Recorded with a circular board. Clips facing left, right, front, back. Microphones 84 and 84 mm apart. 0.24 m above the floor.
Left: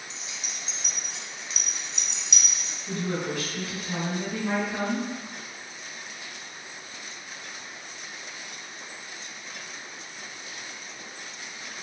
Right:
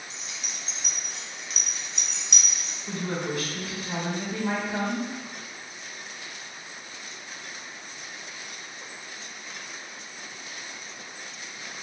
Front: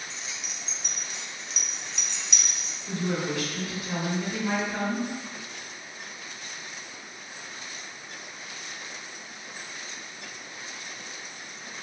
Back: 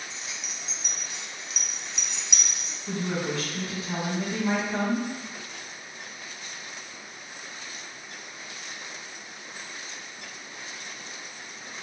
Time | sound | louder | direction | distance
0.1 | keys jangling | even, even | 105° right | 0.9 m
2.9 | a woman speaking | left 1 dB, even | 140° right | 1.9 m